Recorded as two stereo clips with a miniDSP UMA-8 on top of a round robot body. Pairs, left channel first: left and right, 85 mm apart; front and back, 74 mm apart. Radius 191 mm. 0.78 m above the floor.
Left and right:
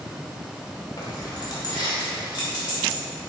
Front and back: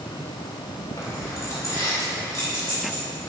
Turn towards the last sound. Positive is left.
turn(degrees=55)